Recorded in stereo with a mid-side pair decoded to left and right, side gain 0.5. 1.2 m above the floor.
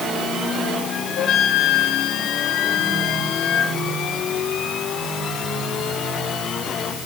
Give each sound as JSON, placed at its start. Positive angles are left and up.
{"t": 1.2, "sound": "a flute", "azimuth_deg": 55, "distance_m": 4.5}